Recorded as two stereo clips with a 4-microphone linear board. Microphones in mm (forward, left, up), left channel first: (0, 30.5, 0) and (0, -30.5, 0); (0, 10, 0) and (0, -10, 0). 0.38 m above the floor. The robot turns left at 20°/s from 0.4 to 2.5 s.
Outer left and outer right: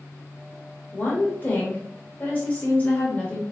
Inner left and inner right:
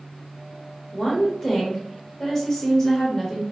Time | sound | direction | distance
0.9 | a woman speaking | 30° left (ahead or behind) | 1.0 m